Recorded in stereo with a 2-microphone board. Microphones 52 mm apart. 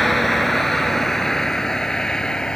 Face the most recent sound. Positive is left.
turn(degrees=15)  # may be behind; listen again after turning